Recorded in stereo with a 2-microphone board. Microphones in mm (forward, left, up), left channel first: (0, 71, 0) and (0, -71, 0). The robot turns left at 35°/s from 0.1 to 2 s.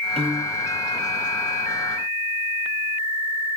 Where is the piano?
45° right (ahead or behind), 1.0 m; by 0.7 s 25° right (ahead or behind), 1.0 m.